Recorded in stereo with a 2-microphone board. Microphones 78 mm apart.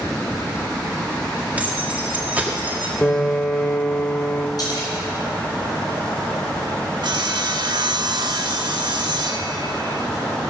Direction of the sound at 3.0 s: 15° left (ahead or behind).